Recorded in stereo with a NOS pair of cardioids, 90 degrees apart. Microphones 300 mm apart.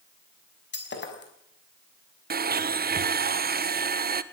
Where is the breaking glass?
35° left, 6 m.